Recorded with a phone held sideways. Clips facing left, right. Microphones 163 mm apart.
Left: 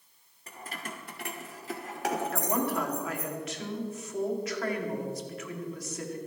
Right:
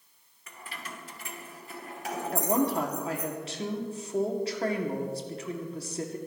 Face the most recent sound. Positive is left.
turn(degrees=-30)  # may be behind; listen again after turning